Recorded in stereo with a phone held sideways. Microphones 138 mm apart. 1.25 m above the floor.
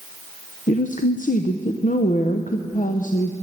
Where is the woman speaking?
70° left (ahead or behind), 0.6 m.